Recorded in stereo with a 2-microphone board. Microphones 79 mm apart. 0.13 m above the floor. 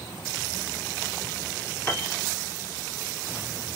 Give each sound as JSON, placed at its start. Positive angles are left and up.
{"t": 1.9, "sound": "a piano", "side_deg": 25, "distance_m": 0.7}